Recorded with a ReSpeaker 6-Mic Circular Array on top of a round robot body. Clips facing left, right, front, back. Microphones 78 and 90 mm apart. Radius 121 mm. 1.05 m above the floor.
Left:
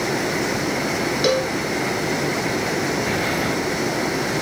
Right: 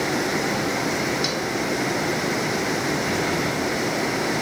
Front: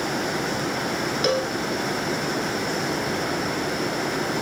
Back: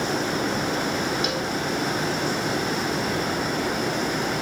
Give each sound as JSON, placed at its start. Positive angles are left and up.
{"t": 1.2, "sound": "a cowbell", "azimuth_deg": 50}